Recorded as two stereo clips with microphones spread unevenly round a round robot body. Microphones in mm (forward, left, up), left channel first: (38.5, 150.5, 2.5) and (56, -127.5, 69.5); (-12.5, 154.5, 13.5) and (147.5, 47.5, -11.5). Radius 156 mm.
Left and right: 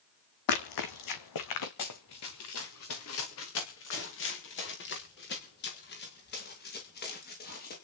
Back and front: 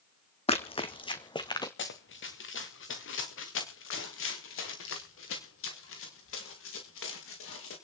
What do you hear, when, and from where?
0.5 s running footsteps: 90° left, 1.7 m; by 1.7 s 80° left, 2.5 m
1.8 s running footsteps: 130° left, 2.5 m; by 7.7 s 155° left, 6 m